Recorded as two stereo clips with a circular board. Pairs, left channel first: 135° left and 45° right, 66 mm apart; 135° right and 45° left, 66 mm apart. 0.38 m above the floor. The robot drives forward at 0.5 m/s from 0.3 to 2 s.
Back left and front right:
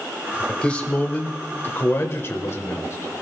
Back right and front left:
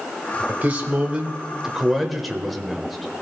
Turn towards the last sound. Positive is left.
turn(degrees=135)